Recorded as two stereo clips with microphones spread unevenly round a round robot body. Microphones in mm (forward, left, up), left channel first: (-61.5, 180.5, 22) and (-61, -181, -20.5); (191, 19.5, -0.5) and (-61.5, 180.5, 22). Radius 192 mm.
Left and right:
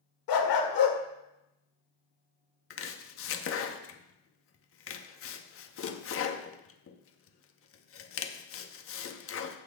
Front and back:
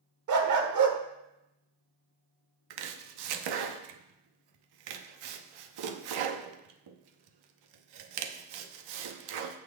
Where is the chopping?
150° left, 0.8 m.